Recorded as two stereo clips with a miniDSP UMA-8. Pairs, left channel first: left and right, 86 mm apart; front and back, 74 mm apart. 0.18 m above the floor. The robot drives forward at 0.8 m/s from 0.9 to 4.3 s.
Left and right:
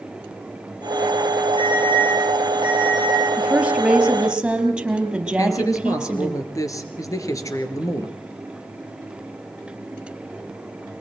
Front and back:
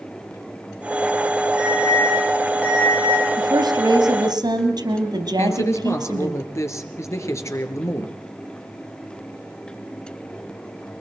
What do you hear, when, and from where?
1.6 s an alarm: 75° left, 6 m; by 3.2 s 85° left, 6 m
3.4 s a woman speaking: 170° right, 3 m
5.4 s a man speaking: 45° left, 3 m